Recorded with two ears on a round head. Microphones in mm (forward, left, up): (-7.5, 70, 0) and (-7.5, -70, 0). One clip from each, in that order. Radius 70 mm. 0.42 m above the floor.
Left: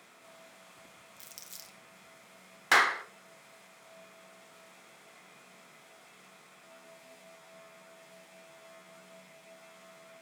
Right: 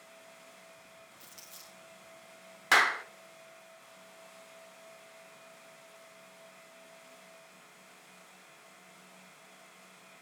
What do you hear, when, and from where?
1.2 s crumpling: 35° left (ahead or behind), 1.8 m
2.7 s a clap: 5° right (ahead or behind), 0.5 m